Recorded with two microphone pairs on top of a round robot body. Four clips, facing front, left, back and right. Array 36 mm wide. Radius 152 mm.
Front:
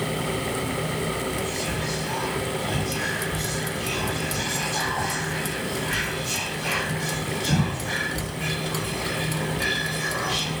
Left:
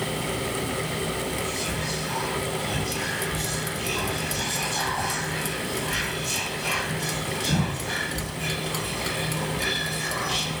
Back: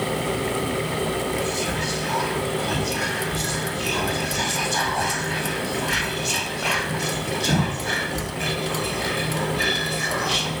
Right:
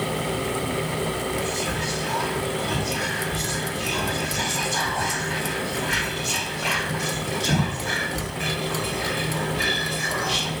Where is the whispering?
145° right, 1.9 m.